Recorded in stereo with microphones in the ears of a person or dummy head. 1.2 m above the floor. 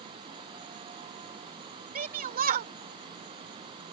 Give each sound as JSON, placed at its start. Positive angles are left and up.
{"t": 1.9, "sound": "a shout", "side_deg": -50}